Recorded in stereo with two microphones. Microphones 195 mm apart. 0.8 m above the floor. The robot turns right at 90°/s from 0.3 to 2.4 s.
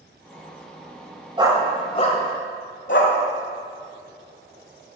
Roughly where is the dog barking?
Right.